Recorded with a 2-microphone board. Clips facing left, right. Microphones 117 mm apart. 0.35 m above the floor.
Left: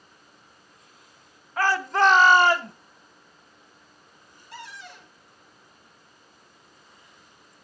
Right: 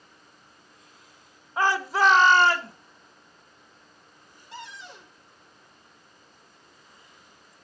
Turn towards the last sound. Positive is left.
turn(degrees=-25)  # may be behind; listen again after turning